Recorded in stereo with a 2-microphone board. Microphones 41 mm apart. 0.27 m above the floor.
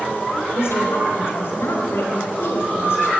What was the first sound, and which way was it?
A woman speaking, 65° left (ahead or behind).